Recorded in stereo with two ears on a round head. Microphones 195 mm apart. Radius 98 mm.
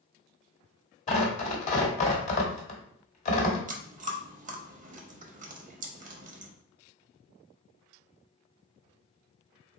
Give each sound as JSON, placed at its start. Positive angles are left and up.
{"t": 1.1, "sound": "tearing paper", "side_deg": 30, "distance_m": 1.2}
{"t": 3.7, "sound": "chewing", "side_deg": -35, "distance_m": 0.8}